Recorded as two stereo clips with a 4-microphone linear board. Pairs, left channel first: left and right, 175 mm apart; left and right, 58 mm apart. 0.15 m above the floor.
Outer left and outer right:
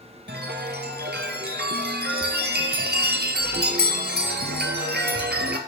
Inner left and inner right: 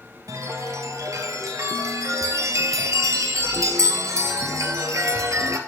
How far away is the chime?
About 1.1 m.